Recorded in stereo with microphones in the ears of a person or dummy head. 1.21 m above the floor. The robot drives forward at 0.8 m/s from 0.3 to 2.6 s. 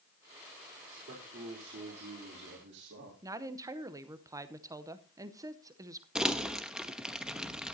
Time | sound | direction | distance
0.9 | a man speaking | 45° right (ahead or behind) | 4 m
3.2 | a woman speaking | 15° right (ahead or behind) | 0.8 m
6.2 | crumpling | 5° right (ahead or behind) | 1.0 m